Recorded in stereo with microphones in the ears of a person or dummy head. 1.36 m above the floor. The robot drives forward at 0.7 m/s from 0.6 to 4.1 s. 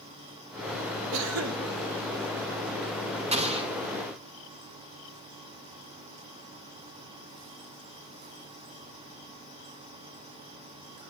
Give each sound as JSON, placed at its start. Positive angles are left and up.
{"t": 1.1, "sound": "a cough", "side_deg": -70, "distance_m": 1.5}
{"t": 3.3, "sound": "an explosion", "side_deg": -35, "distance_m": 1.3}